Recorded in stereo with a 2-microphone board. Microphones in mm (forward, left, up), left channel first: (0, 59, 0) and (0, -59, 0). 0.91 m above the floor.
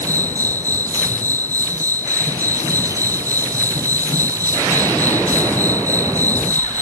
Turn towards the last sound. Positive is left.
turn(degrees=-30)  # may be behind; listen again after turning